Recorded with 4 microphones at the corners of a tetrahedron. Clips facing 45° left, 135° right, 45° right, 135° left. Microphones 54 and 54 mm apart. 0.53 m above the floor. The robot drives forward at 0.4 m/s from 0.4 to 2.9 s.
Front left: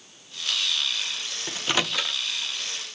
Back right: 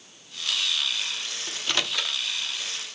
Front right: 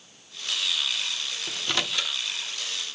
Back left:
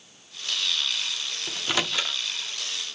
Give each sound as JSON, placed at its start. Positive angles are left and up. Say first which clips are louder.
{"t": 1.5, "sound": "a microwave", "louder": "front left 3 dB, back left 2 dB", "azimuth_deg": 60, "distance_m": 0.6}